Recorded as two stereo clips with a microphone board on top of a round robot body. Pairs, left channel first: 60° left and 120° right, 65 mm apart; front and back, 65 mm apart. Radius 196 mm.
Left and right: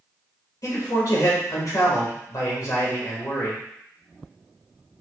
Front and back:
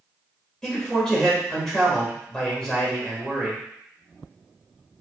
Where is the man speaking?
80° left, 1.7 m.